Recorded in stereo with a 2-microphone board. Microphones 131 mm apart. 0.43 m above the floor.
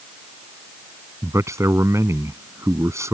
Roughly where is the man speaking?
Right.